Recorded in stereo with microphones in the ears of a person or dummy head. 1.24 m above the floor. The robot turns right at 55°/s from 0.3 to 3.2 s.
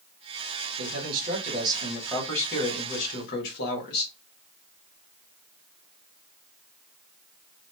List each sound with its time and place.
0.8 s a man speaking: 75° right, 1.6 m; by 4.1 s 60° left, 1.6 m